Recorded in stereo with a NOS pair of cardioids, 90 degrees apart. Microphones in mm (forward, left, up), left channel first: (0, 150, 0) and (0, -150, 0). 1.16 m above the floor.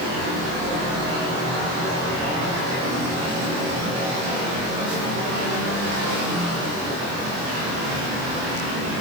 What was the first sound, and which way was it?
Only background noise.